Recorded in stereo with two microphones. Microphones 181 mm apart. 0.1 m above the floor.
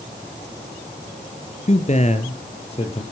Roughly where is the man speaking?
Left.